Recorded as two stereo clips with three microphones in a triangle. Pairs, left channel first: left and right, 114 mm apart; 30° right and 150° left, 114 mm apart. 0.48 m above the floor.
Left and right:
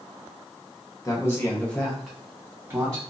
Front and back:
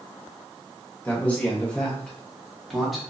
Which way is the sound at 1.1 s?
40° left.